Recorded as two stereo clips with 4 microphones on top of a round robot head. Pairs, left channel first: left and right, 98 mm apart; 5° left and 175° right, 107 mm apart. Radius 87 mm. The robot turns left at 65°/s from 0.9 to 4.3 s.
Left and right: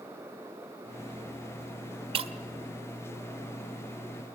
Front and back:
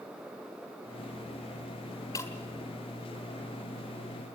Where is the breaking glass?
65° right, 1.0 m; by 2.3 s 75° right, 1.0 m.